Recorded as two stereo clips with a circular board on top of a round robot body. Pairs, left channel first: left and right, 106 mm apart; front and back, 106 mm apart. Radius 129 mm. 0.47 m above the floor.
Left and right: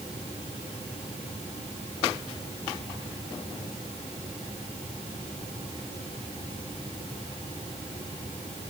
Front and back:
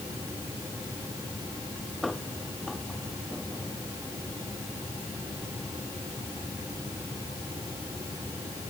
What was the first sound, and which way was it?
Only background noise.